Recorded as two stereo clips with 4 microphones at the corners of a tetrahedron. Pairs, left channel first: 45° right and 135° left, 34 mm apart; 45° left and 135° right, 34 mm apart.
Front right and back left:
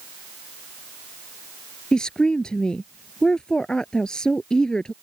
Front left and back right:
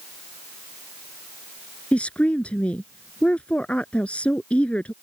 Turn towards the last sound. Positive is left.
turn(degrees=15)